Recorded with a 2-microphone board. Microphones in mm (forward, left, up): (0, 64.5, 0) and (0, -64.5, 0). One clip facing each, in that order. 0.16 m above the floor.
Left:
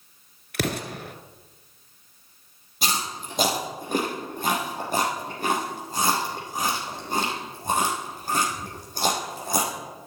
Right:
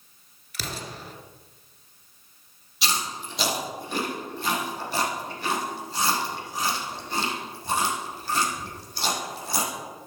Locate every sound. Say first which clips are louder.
0.5 s an explosion: left 8 dB; 65° left (ahead or behind), 1.2 m
2.8 s chewing: left 1 dB; 50° left (ahead or behind), 4 m